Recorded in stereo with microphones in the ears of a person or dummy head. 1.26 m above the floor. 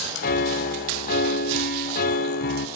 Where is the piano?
50° left (ahead or behind), 1.0 m.